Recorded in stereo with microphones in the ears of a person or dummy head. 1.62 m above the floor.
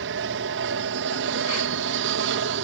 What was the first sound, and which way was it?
An aircraft, 60° right (ahead or behind).